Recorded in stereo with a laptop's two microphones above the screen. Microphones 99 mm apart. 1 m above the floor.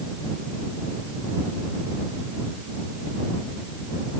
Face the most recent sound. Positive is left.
No sound to turn to.